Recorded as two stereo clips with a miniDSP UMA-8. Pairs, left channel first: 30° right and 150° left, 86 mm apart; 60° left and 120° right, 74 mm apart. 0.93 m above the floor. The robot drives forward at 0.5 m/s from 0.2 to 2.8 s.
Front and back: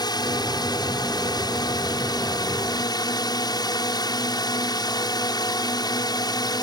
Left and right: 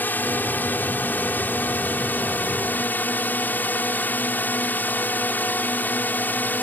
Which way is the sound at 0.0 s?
5° right.